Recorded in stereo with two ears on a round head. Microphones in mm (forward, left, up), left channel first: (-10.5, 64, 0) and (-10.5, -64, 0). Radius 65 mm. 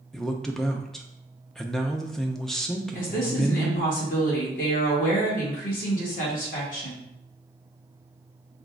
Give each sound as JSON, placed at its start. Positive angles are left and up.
{"t": 0.1, "sound": "a man speaking", "side_deg": 5, "distance_m": 0.5}
{"t": 3.0, "sound": "a woman speaking", "side_deg": 70, "distance_m": 1.8}